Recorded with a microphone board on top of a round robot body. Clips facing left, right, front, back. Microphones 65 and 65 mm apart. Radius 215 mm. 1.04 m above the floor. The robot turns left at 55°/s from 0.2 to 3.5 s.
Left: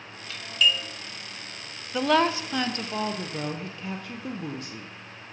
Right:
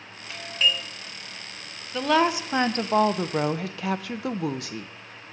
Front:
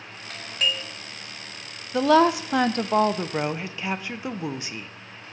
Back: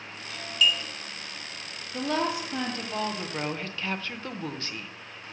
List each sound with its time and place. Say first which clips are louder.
0.3 s a doorbell: even, back 1 dB; 20° right, 1.4 m; by 0.8 s 50° right, 1.4 m
1.9 s a woman speaking: right 1 dB, front 10 dB; 10° left, 0.5 m; by 5.3 s 75° right, 0.5 m